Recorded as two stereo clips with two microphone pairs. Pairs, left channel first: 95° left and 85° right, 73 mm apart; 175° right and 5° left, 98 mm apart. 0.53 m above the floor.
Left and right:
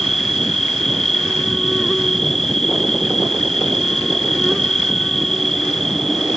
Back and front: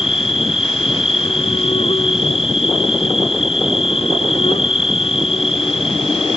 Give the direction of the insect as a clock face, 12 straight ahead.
6 o'clock.